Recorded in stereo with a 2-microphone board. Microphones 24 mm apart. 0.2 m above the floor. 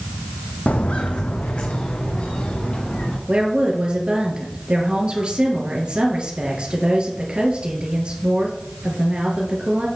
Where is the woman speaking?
50° right (ahead or behind), 3 m.